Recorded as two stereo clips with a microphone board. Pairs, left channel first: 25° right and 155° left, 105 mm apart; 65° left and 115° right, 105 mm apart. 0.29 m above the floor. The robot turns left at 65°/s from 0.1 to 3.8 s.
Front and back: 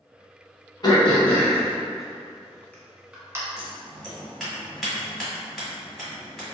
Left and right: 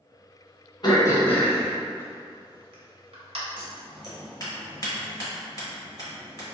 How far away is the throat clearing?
About 0.8 m.